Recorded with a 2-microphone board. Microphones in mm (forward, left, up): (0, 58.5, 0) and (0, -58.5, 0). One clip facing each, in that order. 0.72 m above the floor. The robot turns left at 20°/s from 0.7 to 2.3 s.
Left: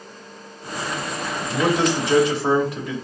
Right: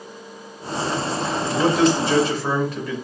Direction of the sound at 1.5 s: 5° right (ahead or behind).